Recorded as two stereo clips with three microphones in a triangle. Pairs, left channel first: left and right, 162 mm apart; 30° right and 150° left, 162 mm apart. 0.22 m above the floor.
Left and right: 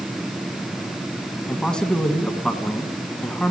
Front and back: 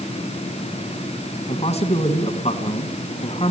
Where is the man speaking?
5° left, 2 m.